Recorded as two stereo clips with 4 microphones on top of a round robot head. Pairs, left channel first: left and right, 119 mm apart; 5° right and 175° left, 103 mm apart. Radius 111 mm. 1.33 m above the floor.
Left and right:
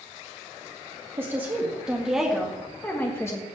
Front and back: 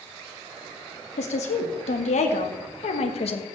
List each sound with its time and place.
1.2 s a woman speaking: 15° right, 2 m; by 3.4 s 20° left, 1.6 m